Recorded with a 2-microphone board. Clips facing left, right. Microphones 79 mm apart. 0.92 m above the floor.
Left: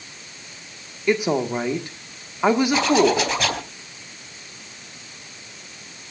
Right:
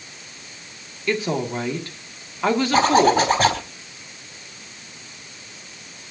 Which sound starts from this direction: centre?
A woman speaking, at 1.1 s.